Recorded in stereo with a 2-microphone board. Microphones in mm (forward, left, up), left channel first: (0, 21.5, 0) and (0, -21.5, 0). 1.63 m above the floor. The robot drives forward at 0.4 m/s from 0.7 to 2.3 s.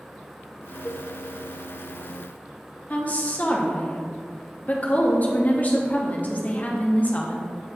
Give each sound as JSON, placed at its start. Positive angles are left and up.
{"t": 0.8, "sound": "a cowbell", "side_deg": 35, "distance_m": 0.5}
{"t": 2.9, "sound": "a woman speaking", "side_deg": 40, "distance_m": 1.0}